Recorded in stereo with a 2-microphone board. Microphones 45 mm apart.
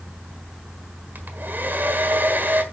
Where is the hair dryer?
50° right (ahead or behind), 1.5 m.